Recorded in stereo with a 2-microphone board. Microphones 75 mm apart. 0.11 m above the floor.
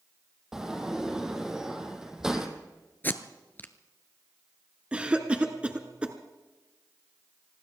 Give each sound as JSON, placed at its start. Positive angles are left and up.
{"t": 0.5, "sound": "a sliding door", "side_deg": -10, "distance_m": 2.0}
{"t": 3.0, "sound": "tape being pulled", "side_deg": 25, "distance_m": 0.9}
{"t": 4.9, "sound": "a cough", "side_deg": -15, "distance_m": 1.1}